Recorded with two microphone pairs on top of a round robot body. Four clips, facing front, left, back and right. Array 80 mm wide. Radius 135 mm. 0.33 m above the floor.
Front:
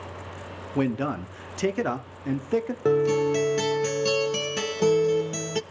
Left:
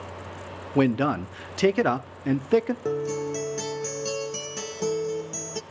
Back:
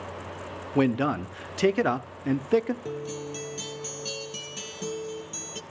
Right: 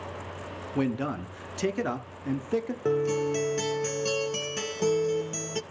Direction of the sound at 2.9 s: 5° right.